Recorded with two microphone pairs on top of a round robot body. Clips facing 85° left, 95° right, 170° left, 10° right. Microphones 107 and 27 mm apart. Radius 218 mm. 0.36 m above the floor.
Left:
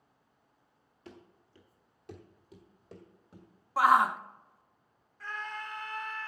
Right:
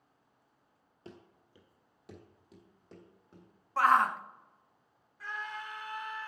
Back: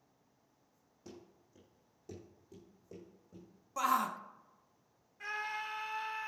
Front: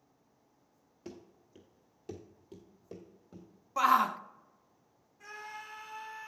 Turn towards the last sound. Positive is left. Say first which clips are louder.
# left 1 dB, back 6 dB
turn(degrees=-175)